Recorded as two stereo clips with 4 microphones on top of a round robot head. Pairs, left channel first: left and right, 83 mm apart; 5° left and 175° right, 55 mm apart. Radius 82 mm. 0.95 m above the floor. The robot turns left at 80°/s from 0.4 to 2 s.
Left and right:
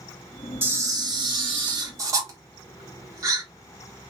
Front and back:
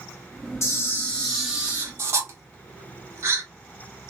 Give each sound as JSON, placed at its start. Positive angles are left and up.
{"t": 0.6, "sound": "a camera shutter", "azimuth_deg": -30, "distance_m": 1.0}